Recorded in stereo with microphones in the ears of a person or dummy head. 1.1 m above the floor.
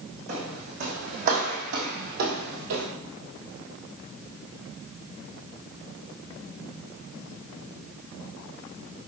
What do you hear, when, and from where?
0.3 s footsteps: 35° right (ahead or behind), 3.5 m; by 2.9 s 55° right (ahead or behind), 2 m